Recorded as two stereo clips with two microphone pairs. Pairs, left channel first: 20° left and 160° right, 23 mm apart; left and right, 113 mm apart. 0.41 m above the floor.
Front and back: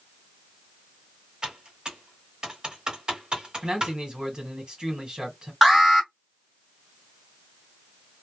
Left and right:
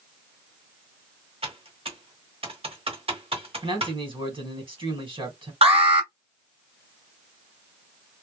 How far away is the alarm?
About 2.5 m.